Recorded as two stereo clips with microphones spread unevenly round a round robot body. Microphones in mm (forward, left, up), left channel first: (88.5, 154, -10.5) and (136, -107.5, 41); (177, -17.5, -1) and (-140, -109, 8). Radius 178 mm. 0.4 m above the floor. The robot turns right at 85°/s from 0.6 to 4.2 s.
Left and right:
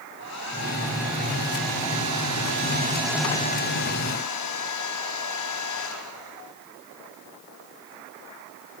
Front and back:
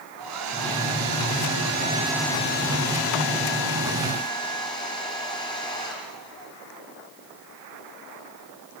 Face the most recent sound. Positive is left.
turn(degrees=95)